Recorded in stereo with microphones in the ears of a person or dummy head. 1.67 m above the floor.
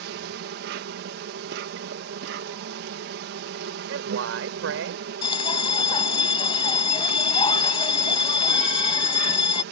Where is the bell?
30° left (ahead or behind).